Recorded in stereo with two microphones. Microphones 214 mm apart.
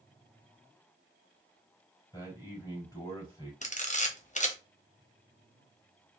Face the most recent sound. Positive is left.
turn(degrees=35)  # may be behind; listen again after turning